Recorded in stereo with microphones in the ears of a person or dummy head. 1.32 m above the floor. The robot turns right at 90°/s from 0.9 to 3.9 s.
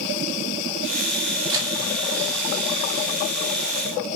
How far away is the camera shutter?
About 3 m.